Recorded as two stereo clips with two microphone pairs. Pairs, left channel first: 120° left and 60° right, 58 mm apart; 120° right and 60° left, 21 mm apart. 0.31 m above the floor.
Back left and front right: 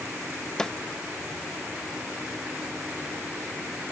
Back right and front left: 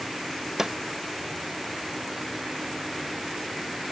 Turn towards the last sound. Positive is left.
turn(degrees=55)